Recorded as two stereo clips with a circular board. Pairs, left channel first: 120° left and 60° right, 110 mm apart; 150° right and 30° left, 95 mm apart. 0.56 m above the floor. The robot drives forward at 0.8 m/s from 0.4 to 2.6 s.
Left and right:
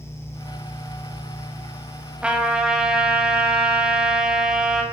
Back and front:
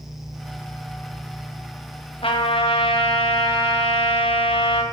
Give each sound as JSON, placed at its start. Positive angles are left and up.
{"t": 2.2, "sound": "a trumpet", "azimuth_deg": -140, "distance_m": 1.8}